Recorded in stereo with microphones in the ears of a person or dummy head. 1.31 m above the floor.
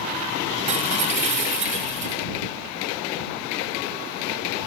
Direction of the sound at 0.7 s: 40° right (ahead or behind).